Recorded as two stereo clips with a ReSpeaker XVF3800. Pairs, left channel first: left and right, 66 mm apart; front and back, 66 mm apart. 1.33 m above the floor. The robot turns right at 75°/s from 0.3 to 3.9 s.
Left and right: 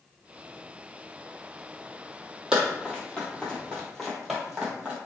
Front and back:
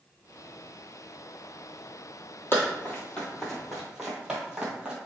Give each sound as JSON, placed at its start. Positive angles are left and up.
{"t": 2.5, "sound": "running footsteps", "azimuth_deg": -15, "distance_m": 1.6}